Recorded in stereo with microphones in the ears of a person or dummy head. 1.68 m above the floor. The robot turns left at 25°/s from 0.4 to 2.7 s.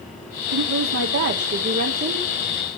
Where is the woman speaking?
105° right, 1.3 m; by 2.3 s 150° right, 1.3 m.